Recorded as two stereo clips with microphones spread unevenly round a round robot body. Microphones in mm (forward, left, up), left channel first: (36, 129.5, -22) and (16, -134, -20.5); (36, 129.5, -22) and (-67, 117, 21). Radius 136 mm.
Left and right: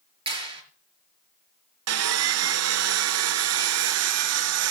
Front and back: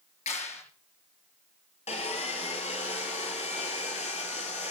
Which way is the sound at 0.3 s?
25° right.